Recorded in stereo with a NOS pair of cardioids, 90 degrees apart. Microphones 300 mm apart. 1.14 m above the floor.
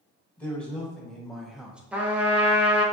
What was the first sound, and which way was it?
A man speaking, 5° left.